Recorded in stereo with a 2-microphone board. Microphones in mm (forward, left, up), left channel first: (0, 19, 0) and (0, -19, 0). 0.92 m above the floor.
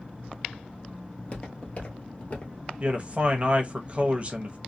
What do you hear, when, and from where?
1.1 s footsteps: 35° left (ahead or behind), 1.2 m
2.8 s a man speaking: 30° right (ahead or behind), 0.8 m